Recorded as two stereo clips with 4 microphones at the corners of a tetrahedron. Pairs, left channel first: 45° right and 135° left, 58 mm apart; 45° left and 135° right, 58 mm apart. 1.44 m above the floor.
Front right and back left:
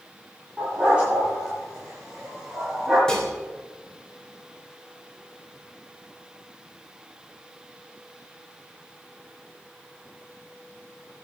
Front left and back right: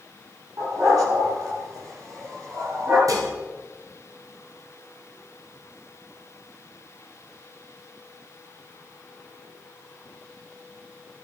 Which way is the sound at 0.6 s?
155° right.